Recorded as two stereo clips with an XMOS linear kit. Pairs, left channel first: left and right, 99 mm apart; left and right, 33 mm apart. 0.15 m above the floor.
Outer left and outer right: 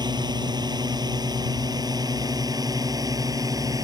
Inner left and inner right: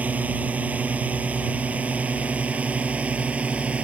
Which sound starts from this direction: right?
A drone, at 0.0 s.